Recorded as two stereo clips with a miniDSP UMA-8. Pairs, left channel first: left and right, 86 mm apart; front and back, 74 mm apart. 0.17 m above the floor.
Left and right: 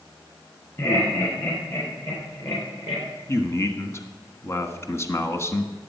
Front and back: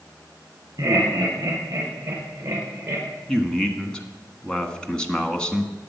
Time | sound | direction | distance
0.8 | laughter | 140° left | 5.5 m
3.3 | a man speaking | 65° left | 1.3 m